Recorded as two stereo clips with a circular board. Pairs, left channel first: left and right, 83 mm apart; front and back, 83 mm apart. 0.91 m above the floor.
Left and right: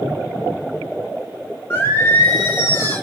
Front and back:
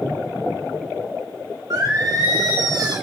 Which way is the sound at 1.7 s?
145° left.